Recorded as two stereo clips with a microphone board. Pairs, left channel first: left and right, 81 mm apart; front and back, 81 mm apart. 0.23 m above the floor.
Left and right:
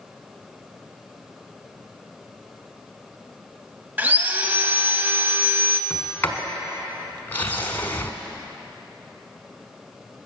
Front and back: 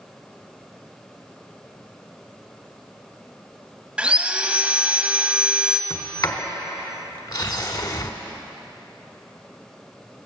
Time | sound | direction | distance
4.0 | sawing | 125° right | 0.8 m
5.9 | a sliding door | 30° left | 1.1 m